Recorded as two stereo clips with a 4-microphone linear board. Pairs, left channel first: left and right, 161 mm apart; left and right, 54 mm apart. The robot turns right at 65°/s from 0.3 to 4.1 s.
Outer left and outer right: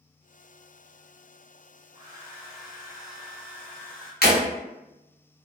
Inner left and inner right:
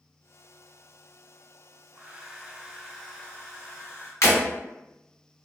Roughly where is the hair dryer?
Ahead right.